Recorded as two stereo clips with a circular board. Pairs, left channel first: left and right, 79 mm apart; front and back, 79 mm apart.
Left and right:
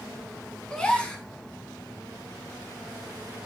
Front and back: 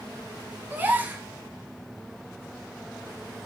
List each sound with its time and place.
0.7 s a gasp: 150° left, 0.7 m